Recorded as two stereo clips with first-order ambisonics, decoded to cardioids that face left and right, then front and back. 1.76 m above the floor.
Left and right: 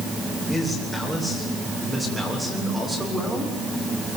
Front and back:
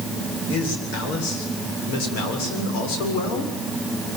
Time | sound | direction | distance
0.5 | a man speaking | 10° left | 8.5 m